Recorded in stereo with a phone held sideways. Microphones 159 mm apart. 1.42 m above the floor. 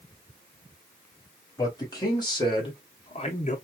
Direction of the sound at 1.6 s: 25° left (ahead or behind).